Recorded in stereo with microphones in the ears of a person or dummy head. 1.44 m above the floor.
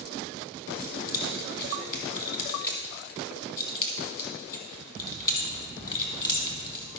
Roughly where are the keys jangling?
Left.